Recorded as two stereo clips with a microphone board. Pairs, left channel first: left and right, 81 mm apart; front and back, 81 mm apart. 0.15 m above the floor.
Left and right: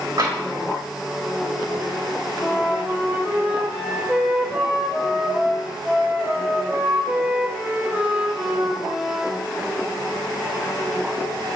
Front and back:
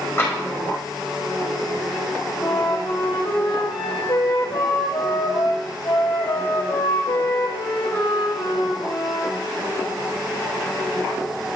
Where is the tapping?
60° right, 5 m.